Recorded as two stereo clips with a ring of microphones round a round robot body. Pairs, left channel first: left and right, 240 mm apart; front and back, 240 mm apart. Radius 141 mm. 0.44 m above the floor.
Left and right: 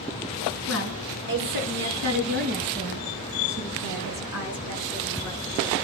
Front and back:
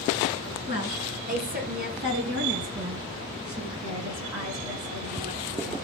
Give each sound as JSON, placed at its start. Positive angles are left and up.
{"t": 0.7, "sound": "a woman speaking", "azimuth_deg": -115, "distance_m": 6.5}